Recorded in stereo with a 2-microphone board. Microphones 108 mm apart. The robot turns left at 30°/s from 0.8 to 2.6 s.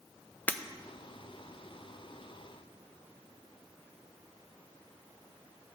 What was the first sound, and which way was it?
Breaking glass, 15° left (ahead or behind).